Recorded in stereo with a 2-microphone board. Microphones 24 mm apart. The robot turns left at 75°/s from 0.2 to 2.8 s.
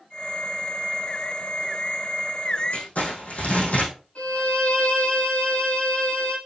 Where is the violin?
80° left, 5 m.